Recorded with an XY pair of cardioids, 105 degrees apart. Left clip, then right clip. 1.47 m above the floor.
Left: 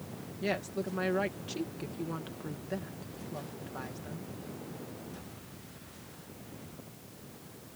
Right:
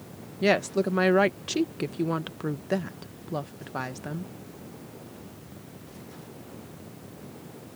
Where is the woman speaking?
70° right.